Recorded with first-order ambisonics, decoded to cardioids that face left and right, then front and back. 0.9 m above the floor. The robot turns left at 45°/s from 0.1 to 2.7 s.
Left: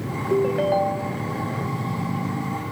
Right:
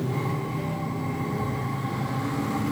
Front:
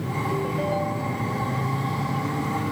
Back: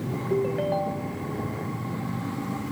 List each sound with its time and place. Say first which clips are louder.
0.3 s a ringtone: left 12 dB, back 2 dB; 110° left; by 1.2 s 70° left